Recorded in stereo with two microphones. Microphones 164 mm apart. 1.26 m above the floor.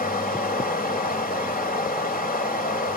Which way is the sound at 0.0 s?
65° left (ahead or behind).